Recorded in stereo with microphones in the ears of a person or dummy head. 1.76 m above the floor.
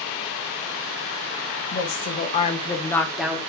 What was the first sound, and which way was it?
A woman speaking, 55° left (ahead or behind).